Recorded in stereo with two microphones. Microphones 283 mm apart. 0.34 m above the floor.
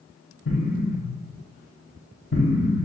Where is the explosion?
50° left (ahead or behind), 1.1 m.